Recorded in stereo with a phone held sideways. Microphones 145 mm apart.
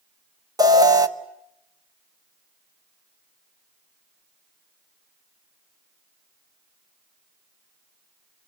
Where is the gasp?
I don't hear a gasp.